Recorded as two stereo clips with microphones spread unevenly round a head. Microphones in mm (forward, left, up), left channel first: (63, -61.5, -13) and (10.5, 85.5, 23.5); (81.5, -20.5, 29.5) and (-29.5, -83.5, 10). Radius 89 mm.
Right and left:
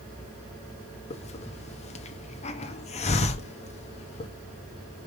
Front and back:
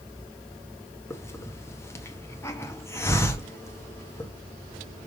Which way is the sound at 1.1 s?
25° right.